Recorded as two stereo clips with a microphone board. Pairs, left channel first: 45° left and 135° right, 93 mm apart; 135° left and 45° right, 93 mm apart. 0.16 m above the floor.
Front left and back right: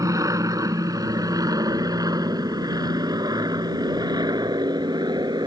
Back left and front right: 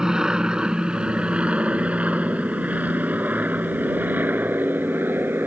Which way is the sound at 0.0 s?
125° right.